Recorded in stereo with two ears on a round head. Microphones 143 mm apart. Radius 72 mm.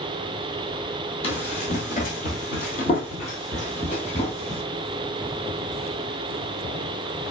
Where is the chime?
No chime in this recording.